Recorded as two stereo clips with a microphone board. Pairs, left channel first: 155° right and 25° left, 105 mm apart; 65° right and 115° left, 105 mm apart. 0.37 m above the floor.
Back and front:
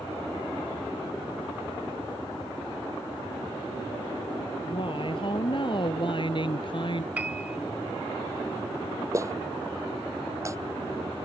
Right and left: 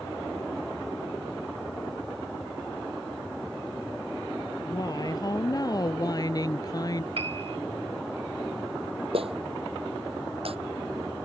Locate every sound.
4.6 s a woman speaking: 120° right
7.2 s a piano: 100° left
9.1 s a clap: 85° left